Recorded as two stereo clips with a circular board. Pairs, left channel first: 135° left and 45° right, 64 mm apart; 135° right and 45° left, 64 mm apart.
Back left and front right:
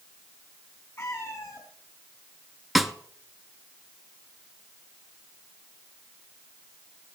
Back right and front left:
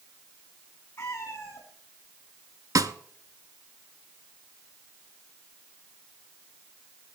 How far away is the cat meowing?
About 3.5 m.